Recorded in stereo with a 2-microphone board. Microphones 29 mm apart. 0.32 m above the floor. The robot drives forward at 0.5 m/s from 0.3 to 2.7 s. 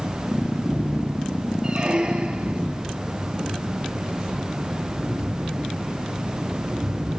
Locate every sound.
1.6 s a squeak: 30° right (ahead or behind), 2 m; by 2.6 s 40° right (ahead or behind), 1.6 m